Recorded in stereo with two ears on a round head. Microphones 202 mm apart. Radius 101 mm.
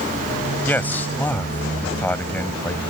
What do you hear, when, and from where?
0.7 s a man speaking: 10° left (ahead or behind)